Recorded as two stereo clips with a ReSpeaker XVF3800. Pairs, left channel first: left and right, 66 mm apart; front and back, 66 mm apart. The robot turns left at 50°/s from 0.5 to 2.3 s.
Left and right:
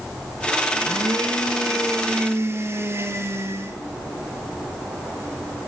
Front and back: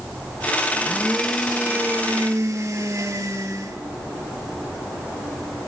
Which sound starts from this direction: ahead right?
A blender, at 0.7 s.